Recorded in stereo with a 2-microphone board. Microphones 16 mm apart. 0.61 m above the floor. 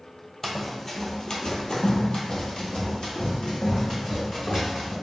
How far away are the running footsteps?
About 1.0 m.